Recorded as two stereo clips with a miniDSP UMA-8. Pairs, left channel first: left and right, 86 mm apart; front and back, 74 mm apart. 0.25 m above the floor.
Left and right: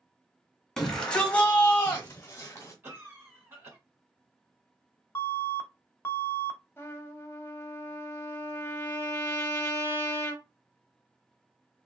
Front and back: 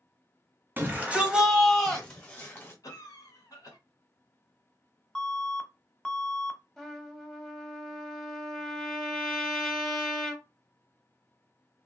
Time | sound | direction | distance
0.8 | a shout | 165° left | 1.1 m
2.8 | a cough | 30° right | 1.9 m
5.2 | an alarm | 80° left | 0.7 m
6.8 | a trumpet | 80° left | 0.7 m